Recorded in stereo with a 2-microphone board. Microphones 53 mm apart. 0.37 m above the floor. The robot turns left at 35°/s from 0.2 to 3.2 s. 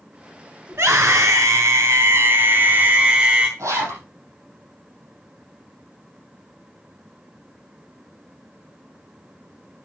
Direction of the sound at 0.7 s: 70° right.